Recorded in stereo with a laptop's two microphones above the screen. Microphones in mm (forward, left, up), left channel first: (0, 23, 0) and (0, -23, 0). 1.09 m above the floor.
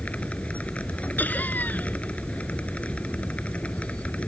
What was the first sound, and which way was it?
A machine running, 30° left (ahead or behind).